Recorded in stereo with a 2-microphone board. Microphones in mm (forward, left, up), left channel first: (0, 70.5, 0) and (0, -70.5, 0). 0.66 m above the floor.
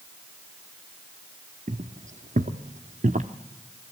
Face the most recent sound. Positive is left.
turn(degrees=-60)  # may be behind; listen again after turning